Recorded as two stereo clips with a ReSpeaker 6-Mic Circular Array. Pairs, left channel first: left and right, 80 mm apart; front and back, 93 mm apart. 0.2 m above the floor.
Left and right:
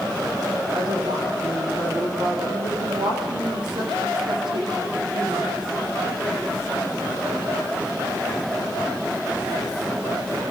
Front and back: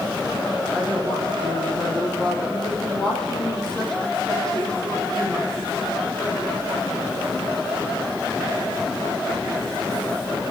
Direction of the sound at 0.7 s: 85° right.